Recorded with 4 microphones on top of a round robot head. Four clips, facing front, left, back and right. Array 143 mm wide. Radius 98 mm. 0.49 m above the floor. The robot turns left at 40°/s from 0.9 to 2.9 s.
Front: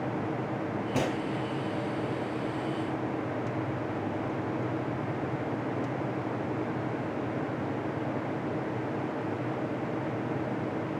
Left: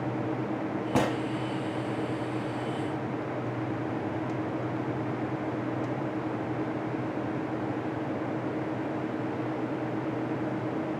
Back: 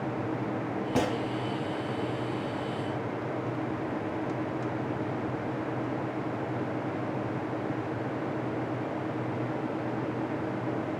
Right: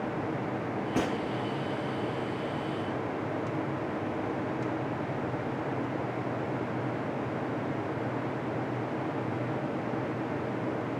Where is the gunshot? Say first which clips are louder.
Left 4 dB, back 2 dB; 110° left, 0.9 m; by 1.2 s 100° left, 0.9 m.